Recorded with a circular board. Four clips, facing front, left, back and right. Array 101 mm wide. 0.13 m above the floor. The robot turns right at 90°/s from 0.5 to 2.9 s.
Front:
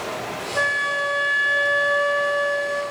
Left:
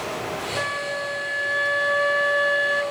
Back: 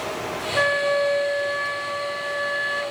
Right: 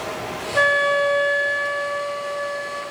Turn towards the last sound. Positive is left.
turn(degrees=115)